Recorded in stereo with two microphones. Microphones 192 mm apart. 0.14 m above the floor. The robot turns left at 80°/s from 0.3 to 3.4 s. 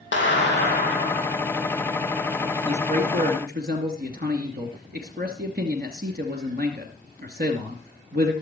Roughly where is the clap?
Left.